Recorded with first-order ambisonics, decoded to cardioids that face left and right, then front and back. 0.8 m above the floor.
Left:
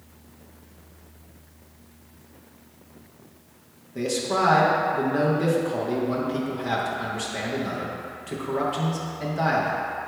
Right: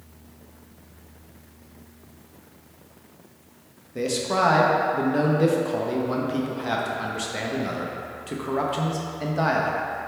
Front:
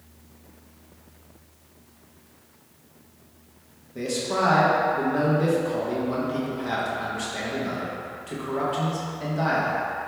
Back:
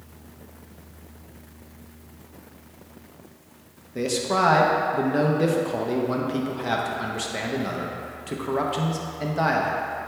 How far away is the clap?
No clap in this recording.